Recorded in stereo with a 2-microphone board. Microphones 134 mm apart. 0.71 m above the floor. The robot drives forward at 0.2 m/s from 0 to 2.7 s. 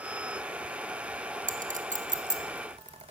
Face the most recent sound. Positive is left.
turn(degrees=-65)  # may be behind; listen again after turning